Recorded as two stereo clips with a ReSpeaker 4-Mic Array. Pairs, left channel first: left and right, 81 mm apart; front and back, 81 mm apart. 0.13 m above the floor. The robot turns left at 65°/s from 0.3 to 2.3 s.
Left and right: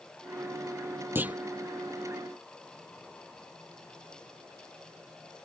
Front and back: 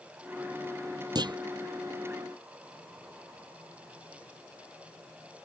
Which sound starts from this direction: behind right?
A clunk, at 1.1 s.